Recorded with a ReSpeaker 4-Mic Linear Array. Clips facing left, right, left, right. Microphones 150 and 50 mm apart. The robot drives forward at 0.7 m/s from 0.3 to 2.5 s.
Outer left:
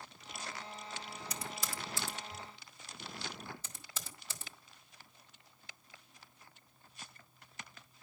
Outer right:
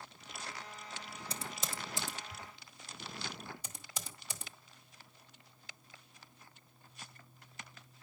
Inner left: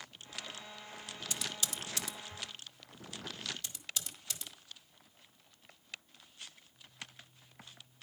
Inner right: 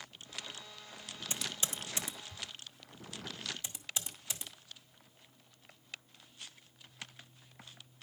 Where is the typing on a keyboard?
30° right (ahead or behind), 0.8 m; by 4.5 s 15° right (ahead or behind), 1.6 m.